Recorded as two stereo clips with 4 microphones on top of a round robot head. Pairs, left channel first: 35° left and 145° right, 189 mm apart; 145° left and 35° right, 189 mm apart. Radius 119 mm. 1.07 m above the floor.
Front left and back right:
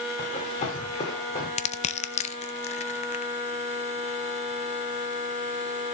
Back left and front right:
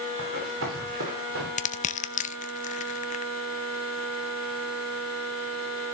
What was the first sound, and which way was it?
Running footsteps, 20° right.